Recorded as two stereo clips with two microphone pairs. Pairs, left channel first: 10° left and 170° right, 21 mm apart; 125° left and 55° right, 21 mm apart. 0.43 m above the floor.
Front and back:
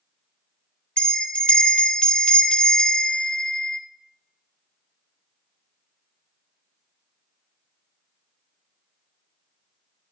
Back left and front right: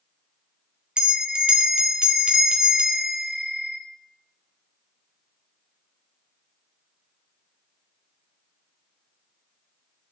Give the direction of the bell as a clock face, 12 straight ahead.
12 o'clock.